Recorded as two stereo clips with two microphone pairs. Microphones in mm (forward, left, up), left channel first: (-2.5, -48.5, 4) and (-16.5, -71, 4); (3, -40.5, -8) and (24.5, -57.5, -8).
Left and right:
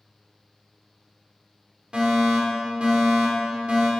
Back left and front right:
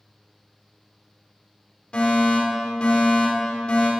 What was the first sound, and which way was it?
A fire alarm, 165° right.